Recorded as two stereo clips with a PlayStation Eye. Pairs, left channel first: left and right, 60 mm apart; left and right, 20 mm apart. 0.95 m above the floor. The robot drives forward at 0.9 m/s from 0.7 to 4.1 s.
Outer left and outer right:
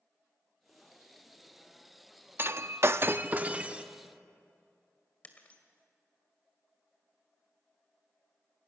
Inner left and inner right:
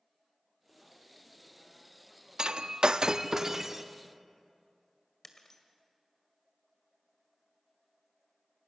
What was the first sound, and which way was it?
Breaking glass, 45° right (ahead or behind).